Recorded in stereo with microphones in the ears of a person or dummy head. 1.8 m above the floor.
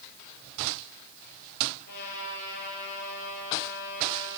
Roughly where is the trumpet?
Left.